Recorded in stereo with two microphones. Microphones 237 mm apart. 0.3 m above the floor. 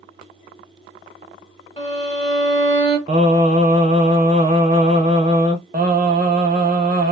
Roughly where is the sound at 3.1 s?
Right.